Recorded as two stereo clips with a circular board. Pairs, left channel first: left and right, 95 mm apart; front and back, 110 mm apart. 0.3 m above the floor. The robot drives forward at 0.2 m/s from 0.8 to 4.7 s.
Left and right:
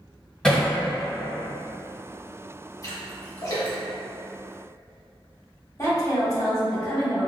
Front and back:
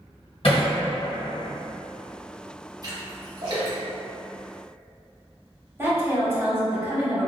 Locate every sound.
0.4 s hammering: 10° left, 1.3 m
2.8 s a splash: 135° left, 1.2 m; by 4.8 s 145° left, 1.5 m
5.8 s a woman speaking: 125° left, 1.2 m